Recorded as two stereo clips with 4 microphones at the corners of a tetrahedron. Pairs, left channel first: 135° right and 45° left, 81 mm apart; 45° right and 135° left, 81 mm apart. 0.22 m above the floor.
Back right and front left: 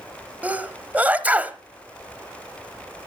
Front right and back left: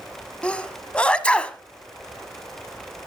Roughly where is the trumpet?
I don't hear a trumpet.